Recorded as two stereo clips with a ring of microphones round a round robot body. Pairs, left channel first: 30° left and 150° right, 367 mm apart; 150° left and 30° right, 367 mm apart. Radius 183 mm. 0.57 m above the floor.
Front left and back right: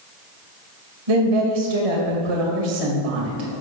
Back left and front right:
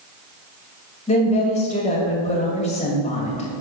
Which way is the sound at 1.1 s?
140° right.